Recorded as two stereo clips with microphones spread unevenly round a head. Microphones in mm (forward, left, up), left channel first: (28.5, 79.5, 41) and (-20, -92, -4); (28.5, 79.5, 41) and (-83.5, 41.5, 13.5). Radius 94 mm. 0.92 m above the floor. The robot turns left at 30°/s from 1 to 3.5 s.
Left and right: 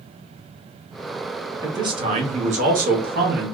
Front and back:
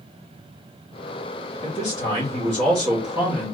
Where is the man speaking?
40° right, 1.4 m; by 3.5 s 95° right, 1.4 m.